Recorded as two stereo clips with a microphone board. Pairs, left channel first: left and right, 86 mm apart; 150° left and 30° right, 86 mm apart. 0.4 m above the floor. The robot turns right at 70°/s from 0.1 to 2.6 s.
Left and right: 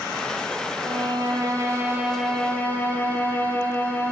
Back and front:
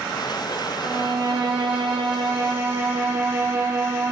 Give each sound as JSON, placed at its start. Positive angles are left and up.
{"t": 0.8, "sound": "a violin", "azimuth_deg": -100, "distance_m": 4.5}